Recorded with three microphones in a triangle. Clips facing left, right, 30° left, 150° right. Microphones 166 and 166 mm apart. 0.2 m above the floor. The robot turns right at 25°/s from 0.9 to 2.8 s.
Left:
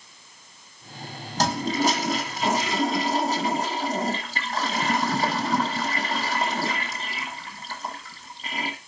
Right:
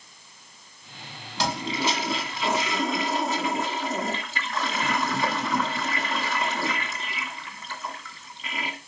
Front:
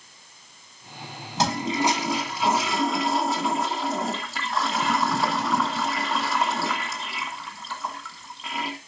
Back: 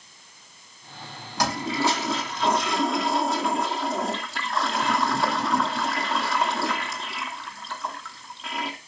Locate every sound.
1.4 s a toilet flushing: 85° left, 1.7 m; by 8.8 s 120° left, 1.7 m